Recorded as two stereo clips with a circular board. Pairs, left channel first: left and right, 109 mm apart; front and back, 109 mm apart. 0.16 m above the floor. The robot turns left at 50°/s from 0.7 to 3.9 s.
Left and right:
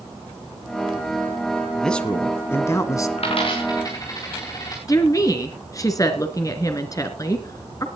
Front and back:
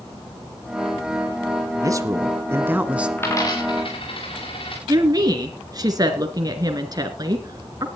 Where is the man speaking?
175° left, 1.2 m; by 3.1 s 110° left, 1.2 m.